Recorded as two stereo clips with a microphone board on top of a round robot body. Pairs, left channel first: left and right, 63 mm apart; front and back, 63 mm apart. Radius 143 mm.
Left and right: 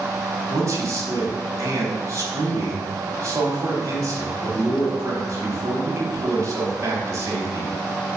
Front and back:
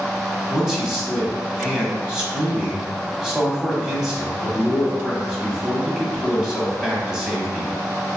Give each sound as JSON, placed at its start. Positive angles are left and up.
{"t": 0.5, "sound": "a man speaking", "azimuth_deg": -105, "distance_m": 1.3}